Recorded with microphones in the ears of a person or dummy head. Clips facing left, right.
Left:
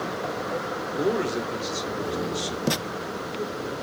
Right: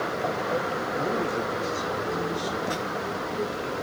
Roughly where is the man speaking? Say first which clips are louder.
Left 5 dB; left.